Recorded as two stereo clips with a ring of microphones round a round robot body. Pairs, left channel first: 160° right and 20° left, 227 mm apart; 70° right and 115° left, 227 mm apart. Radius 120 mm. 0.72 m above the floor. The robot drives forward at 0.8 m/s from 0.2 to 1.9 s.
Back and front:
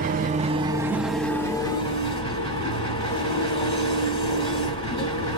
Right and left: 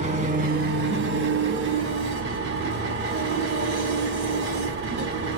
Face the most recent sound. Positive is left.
turn(degrees=140)